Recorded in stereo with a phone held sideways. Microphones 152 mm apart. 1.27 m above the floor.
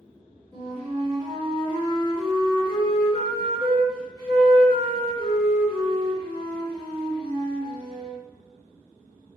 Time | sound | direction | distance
0.5 | a flute | 35° left (ahead or behind) | 1.5 m